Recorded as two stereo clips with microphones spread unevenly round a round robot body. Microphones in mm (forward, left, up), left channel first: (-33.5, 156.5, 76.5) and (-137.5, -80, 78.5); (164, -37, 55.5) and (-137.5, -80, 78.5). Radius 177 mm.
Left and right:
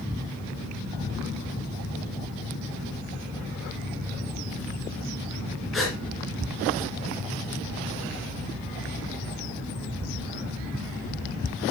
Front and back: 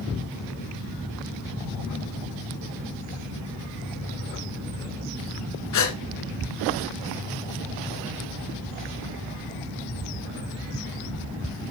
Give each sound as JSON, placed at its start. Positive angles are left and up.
{"t": 5.7, "sound": "a gasp", "azimuth_deg": -25, "distance_m": 1.9}